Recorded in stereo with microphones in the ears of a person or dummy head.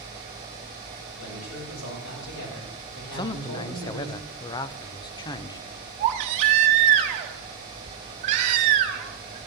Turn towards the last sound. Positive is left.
turn(degrees=-40)  # may be behind; listen again after turning